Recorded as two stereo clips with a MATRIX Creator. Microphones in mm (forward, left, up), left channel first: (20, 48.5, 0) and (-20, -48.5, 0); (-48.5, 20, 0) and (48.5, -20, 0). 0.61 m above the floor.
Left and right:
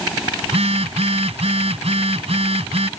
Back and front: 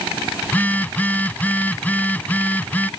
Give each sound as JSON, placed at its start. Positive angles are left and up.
{"t": 0.4, "sound": "a phone buzzing", "azimuth_deg": -130}